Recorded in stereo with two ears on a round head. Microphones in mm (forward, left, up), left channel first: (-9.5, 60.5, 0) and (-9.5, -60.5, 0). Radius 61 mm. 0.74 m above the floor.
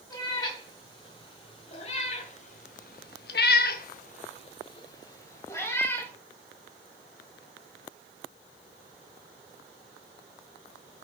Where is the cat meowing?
30° left (ahead or behind), 2.5 m; by 6.1 s 15° left (ahead or behind), 2 m.